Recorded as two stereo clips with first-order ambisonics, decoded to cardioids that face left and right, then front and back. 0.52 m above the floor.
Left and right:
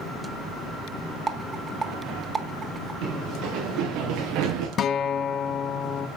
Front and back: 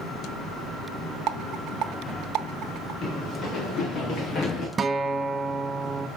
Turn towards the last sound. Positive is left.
turn(degrees=125)